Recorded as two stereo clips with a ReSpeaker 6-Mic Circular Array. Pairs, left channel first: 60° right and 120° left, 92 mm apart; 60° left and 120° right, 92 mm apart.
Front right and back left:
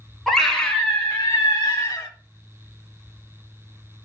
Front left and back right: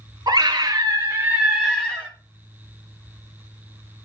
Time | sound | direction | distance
0.3 | a scream | 145° right | 1.5 m